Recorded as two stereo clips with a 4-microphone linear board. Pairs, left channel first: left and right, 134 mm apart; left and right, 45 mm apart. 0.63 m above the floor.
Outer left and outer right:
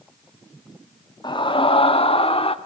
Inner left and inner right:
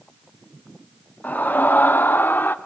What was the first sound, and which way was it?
A scream, 35° left (ahead or behind).